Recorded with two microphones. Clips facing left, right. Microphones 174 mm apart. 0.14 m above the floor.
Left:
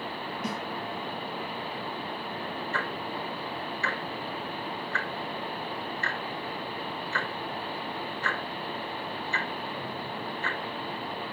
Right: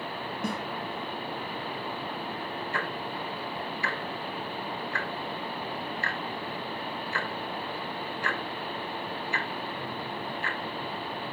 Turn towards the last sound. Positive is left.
turn(degrees=-10)  # may be behind; listen again after turning